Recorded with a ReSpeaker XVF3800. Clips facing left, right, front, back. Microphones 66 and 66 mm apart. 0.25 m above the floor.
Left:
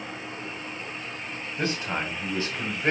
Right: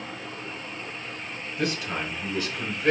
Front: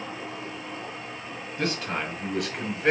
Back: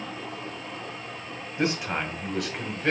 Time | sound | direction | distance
1.6 | a man speaking | 130° left | 1.6 m